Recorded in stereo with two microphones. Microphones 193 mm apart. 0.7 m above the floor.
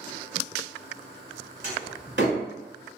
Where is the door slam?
65° right (ahead or behind), 1.4 m.